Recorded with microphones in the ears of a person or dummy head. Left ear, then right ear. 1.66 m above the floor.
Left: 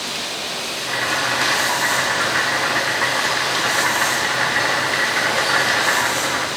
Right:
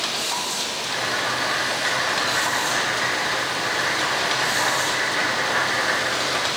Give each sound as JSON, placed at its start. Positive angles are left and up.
{"t": 0.8, "sound": "boiling", "side_deg": 80, "distance_m": 3.0}